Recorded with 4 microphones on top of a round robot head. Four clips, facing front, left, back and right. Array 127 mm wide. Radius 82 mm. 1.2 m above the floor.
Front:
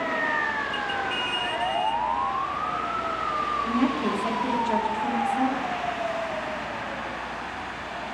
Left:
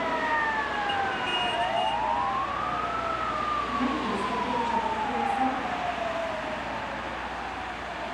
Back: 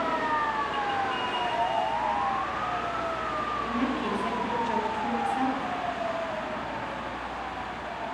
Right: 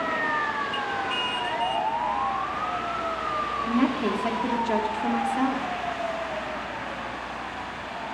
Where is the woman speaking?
70° right, 2.5 m; by 5.7 s 90° right, 3 m.